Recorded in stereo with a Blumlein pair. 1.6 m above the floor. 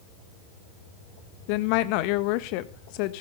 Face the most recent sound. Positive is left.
turn(degrees=45)